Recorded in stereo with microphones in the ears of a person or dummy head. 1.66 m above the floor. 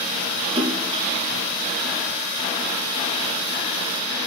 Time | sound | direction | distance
0.6 | a splash | 25° right (ahead or behind) | 4 m